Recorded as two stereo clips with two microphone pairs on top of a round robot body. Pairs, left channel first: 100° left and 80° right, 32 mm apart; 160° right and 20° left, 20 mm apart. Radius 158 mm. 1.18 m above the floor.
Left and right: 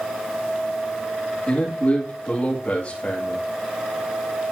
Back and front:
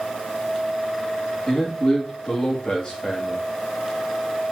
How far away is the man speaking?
About 2.5 m.